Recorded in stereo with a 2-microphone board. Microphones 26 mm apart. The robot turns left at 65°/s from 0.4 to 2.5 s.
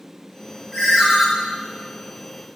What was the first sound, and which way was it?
A ringtone, 15° left (ahead or behind).